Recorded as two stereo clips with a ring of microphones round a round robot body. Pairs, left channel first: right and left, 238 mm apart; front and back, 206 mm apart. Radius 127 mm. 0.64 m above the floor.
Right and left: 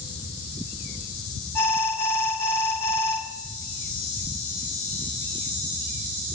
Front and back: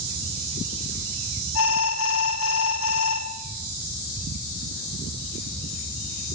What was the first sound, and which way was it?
An alarm, 10° right.